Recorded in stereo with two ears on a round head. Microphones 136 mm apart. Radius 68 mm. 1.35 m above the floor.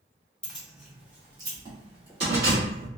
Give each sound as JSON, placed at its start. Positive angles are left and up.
{"t": 0.4, "sound": "keys jangling", "side_deg": 5, "distance_m": 0.9}